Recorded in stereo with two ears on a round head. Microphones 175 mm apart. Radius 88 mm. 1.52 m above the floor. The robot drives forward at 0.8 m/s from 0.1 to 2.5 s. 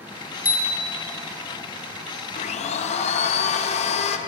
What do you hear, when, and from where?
0.5 s a bicycle bell: 10° right (ahead or behind), 3 m
2.4 s a blender: 40° left (ahead or behind), 0.9 m; by 4.2 s 35° left (ahead or behind), 1.0 m